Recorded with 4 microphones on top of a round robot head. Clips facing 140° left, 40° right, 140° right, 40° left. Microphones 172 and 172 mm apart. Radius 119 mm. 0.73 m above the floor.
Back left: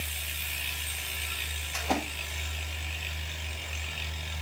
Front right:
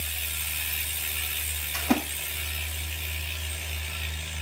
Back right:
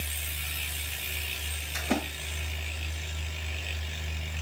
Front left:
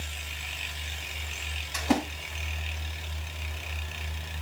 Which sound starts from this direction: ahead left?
A splash, at 1.7 s.